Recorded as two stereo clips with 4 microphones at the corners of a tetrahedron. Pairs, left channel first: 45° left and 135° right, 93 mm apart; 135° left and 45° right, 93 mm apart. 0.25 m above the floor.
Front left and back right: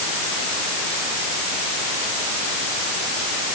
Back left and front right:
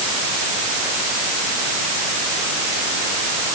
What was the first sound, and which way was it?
Only background noise.